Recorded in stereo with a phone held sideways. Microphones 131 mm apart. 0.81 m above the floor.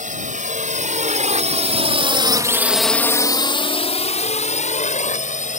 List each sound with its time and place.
0.0 s a drone: 75° right (ahead or behind); by 5.6 s 70° left (ahead or behind)